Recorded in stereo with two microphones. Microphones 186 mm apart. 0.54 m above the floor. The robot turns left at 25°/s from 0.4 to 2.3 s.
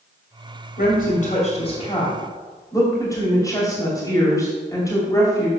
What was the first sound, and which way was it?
A woman speaking, 55° left (ahead or behind).